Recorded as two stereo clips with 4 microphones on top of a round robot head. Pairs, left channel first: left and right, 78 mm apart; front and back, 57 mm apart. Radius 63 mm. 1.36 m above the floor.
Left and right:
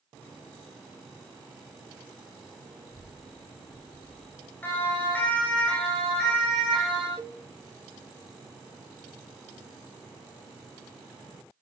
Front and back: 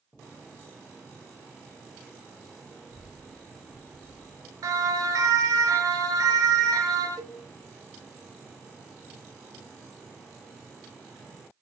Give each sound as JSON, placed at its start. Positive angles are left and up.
{"t": 2.9, "sound": "a child speaking", "azimuth_deg": 100, "distance_m": 3.0}
{"t": 4.6, "sound": "a siren", "azimuth_deg": 160, "distance_m": 9.0}
{"t": 7.2, "sound": "a cowbell", "azimuth_deg": -150, "distance_m": 3.5}